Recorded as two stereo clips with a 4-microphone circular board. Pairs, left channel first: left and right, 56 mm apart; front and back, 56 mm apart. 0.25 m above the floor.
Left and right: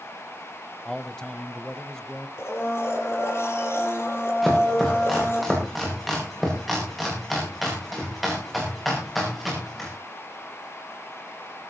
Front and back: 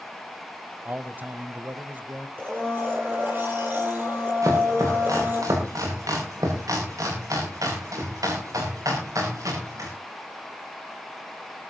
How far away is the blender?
About 6.5 m.